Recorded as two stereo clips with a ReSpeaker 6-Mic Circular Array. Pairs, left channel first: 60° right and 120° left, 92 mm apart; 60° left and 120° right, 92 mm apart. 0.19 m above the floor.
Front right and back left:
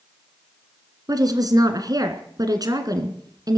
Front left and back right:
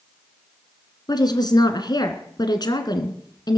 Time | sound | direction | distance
1.1 | a woman speaking | 85° left | 2 m